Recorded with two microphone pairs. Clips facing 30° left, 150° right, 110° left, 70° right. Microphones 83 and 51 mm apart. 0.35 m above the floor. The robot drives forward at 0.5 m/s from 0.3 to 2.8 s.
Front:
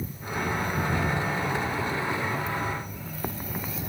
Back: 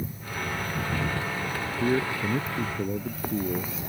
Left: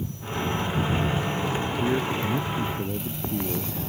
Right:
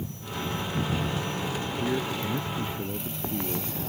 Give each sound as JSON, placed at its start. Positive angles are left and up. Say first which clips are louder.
{"t": 1.8, "sound": "a man speaking", "louder": "back 3 dB, left 3 dB", "azimuth_deg": -175}